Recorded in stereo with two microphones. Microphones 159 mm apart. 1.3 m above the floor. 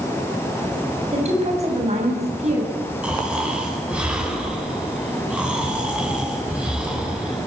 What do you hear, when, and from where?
1.1 s a woman speaking: 40° right (ahead or behind), 8 m
3.0 s snoring: 5° right (ahead or behind), 8 m